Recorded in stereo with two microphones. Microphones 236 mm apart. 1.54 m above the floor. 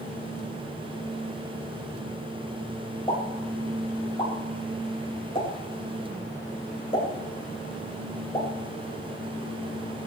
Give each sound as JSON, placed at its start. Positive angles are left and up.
{"t": 3.1, "sound": "a pop", "side_deg": 25, "distance_m": 5.0}